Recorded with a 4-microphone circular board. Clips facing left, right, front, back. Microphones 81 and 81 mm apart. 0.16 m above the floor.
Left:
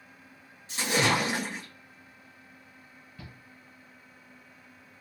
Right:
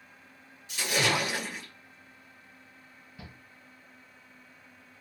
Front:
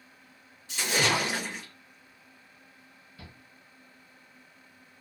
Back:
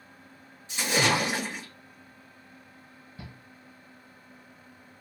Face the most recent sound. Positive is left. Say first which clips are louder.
# even, back 4 dB
turn(degrees=-160)